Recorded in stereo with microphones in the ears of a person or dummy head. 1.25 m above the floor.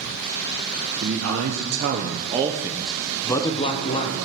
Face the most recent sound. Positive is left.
turn(degrees=35)  # may be behind; listen again after turning